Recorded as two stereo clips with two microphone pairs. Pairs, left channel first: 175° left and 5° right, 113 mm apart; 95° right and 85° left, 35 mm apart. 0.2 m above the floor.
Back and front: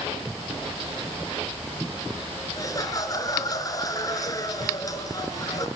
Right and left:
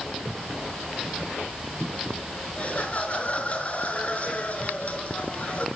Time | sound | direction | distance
2.6 | laughter | 135° right | 3.5 m